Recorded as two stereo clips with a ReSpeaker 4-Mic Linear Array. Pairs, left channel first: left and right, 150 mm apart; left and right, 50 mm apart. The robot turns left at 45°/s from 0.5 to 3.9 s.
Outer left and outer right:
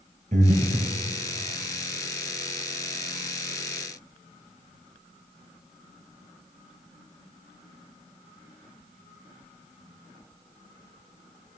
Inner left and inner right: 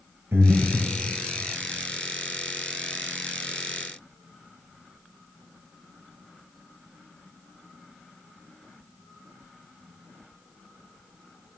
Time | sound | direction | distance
0.3 | breathing | 60° right (ahead or behind) | 1.5 m